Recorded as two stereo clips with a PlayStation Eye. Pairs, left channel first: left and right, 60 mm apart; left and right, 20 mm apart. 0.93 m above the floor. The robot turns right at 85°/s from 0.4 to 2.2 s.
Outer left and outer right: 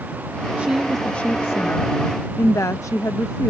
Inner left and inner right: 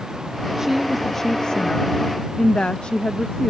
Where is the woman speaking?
30° right; by 3.5 s 110° left.